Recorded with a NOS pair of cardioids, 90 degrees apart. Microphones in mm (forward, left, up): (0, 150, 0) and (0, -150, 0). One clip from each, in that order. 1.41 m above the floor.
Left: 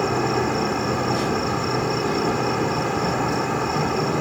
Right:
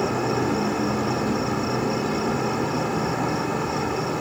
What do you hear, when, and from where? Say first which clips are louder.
0.0 s an insect: left 2 dB; 20° left